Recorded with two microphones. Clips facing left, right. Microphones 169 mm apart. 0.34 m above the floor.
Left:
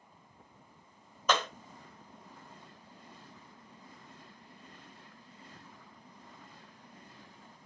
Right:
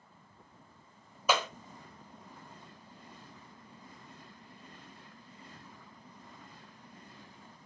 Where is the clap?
10° right (ahead or behind), 1.0 m.